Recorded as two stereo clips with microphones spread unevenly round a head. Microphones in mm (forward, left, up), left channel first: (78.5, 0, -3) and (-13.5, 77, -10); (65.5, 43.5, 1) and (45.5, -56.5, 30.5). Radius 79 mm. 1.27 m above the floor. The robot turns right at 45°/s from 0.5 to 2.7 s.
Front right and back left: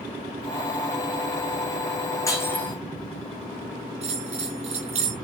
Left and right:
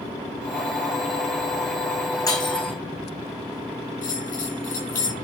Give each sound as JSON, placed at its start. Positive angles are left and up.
{"t": 2.3, "sound": "breaking glass", "azimuth_deg": 20, "distance_m": 4.0}
{"t": 4.0, "sound": "a bell", "azimuth_deg": 115, "distance_m": 3.0}